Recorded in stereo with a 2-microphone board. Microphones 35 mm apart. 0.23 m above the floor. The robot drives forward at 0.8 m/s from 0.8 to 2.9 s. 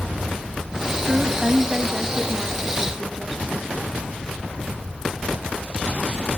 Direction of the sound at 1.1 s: 15° right (ahead or behind).